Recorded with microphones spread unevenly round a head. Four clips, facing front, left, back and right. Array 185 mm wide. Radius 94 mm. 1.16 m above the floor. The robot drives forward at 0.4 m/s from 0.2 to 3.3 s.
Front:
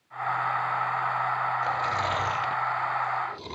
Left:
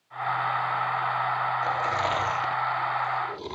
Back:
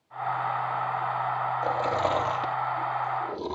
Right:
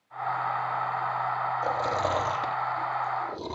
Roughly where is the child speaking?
No child speaking in this recording.